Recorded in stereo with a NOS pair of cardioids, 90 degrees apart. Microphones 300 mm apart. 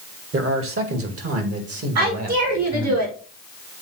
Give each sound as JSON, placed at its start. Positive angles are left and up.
{"t": 0.3, "sound": "a man speaking", "azimuth_deg": -45, "distance_m": 2.0}
{"t": 1.9, "sound": "a woman speaking", "azimuth_deg": -60, "distance_m": 3.5}